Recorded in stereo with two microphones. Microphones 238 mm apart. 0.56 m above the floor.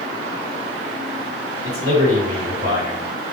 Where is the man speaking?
75° right (ahead or behind), 4.5 m.